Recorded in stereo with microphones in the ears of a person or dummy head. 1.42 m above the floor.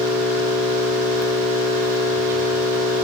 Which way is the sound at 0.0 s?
10° right (ahead or behind).